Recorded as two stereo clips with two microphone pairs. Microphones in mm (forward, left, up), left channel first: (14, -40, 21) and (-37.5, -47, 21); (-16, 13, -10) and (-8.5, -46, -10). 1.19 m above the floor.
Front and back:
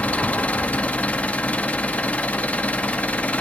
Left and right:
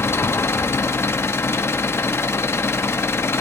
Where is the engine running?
65° left, 0.8 m.